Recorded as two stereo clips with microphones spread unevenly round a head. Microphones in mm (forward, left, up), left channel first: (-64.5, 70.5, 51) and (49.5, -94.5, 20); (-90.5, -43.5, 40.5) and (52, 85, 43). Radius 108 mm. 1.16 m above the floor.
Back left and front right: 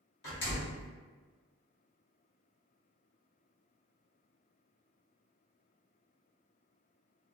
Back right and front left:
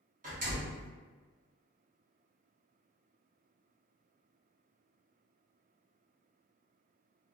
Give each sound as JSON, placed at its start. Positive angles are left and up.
{"t": 0.2, "sound": "a door slam", "azimuth_deg": 90, "distance_m": 1.2}